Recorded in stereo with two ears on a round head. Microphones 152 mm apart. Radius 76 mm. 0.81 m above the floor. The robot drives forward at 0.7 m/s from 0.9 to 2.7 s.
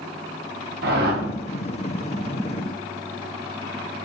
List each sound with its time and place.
0.8 s a whoosh: 65° right (ahead or behind), 1.5 m; by 1.2 s 60° right (ahead or behind), 1.6 m